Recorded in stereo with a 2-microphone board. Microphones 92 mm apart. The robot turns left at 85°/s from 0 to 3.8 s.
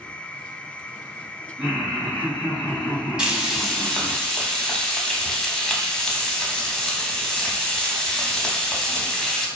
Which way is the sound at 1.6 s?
155° right.